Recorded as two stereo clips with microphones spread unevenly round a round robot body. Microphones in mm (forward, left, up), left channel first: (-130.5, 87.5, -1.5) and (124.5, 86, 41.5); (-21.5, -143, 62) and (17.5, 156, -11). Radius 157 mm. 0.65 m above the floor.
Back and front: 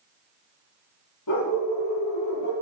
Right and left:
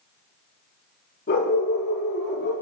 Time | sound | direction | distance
1.3 | a dog barking | 160° right | 7.5 m